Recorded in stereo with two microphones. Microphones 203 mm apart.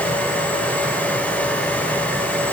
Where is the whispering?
I don't hear whispering.